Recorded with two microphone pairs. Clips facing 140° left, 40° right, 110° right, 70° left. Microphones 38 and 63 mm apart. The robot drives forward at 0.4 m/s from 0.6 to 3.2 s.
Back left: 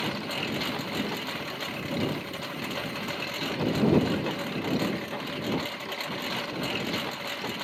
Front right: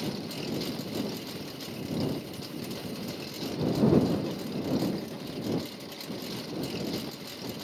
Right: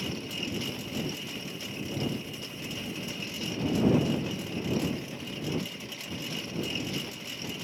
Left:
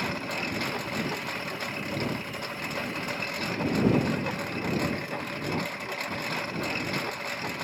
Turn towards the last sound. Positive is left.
turn(degrees=95)